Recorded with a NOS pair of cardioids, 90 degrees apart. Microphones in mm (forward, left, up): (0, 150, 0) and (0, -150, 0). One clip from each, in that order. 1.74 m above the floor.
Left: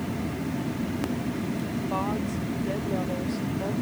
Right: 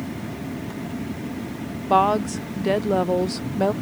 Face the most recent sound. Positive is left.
turn(degrees=-70)